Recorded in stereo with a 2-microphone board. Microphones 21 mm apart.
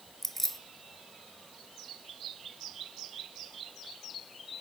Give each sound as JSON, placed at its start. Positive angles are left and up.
{"t": 0.2, "sound": "keys jangling", "side_deg": 10, "distance_m": 1.4}